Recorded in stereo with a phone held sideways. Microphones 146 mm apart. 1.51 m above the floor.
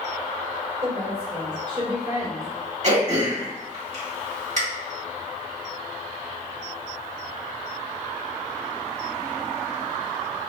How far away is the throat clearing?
About 2.0 m.